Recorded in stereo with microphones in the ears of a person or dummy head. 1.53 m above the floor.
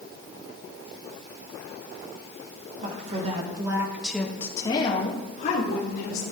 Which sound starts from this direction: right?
A woman speaking, at 2.8 s.